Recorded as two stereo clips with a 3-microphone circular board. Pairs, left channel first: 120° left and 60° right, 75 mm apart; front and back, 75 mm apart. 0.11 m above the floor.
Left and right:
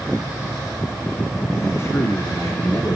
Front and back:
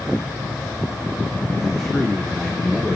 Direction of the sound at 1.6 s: 85° left.